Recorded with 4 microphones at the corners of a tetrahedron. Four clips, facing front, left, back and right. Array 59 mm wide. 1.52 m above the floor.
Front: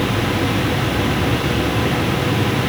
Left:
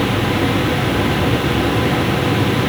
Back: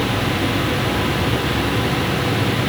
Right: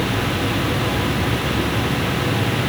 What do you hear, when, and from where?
Only background noise.